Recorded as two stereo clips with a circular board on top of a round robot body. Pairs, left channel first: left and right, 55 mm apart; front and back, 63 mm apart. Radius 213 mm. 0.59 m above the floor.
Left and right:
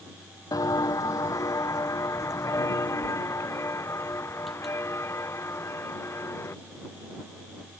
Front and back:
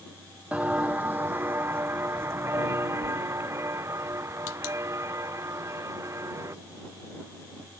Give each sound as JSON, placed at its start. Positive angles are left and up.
{"t": 0.5, "sound": "footsteps", "azimuth_deg": 105}